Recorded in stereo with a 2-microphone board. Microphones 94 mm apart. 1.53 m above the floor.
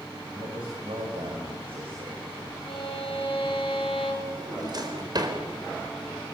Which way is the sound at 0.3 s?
70° right (ahead or behind).